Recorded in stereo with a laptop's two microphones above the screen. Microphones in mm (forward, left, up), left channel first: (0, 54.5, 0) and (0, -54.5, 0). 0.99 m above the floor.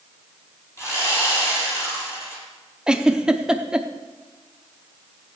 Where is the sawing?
25° left (ahead or behind), 7 m.